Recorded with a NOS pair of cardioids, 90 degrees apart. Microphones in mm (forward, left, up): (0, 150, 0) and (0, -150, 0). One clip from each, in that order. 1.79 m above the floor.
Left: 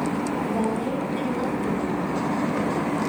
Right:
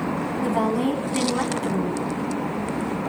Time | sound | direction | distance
0.4 | a woman speaking | 65° right | 4.5 m